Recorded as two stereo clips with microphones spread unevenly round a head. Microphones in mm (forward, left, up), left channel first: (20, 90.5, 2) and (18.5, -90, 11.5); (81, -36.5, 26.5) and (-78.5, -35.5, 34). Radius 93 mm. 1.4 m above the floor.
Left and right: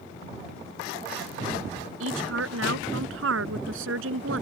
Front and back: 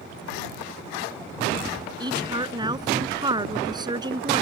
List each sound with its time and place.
2.0 s a woman speaking: 115° right